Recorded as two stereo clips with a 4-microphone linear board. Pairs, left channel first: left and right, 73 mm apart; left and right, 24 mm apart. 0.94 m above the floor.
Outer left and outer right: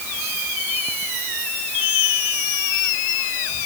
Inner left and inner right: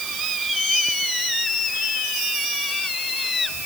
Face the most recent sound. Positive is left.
No sound to turn to.